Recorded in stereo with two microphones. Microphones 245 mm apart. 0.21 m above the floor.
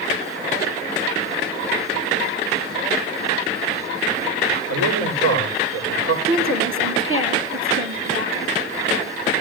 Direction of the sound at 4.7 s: 75° right (ahead or behind).